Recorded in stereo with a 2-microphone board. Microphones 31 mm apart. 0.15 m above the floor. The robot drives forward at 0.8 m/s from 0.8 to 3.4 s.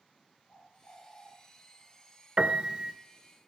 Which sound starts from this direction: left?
A bird, at 0.5 s.